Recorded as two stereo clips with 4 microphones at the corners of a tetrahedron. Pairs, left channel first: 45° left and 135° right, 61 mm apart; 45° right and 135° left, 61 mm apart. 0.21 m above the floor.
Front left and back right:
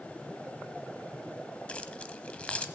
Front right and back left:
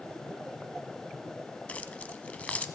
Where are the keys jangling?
5° right, 0.8 m.